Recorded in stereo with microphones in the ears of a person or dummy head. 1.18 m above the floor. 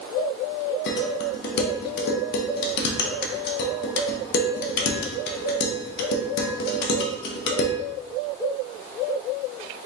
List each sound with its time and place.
0.9 s dishes clattering: 60° left (ahead or behind), 1.0 m